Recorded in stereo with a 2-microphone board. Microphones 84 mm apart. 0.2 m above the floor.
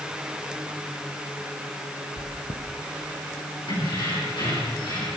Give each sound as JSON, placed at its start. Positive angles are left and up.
{"t": 2.2, "sound": "chewing", "side_deg": 65, "distance_m": 3.0}
{"t": 3.7, "sound": "keys jangling", "side_deg": 70, "distance_m": 7.0}